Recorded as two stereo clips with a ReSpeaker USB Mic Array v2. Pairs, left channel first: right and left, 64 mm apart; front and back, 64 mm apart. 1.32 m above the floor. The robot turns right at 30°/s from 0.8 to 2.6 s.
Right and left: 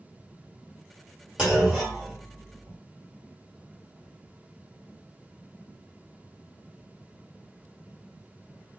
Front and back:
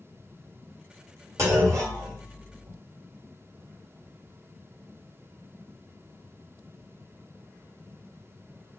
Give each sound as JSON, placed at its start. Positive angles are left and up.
{"t": 1.4, "sound": "a clunk", "azimuth_deg": 160, "distance_m": 1.5}